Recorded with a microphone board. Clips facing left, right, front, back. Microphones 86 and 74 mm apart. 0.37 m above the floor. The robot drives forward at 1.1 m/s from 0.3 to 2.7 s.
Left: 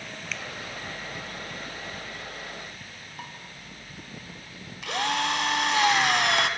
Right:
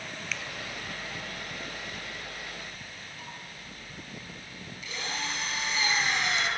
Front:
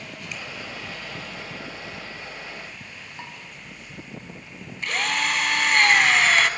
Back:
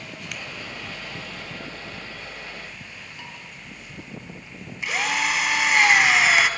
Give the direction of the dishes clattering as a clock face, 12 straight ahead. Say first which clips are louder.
Left 5 dB, front 3 dB; 10 o'clock.